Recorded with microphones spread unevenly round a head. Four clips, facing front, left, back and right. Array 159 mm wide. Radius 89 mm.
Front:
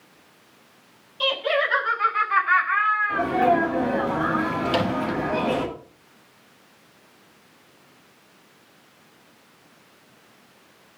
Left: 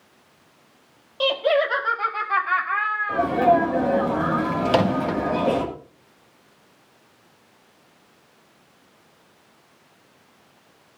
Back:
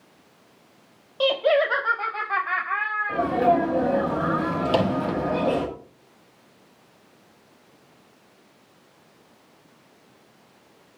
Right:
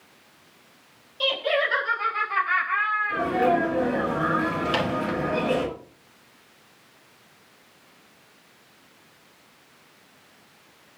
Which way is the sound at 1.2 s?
145° left.